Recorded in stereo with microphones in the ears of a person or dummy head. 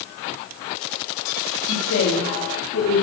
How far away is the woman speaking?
About 3.5 m.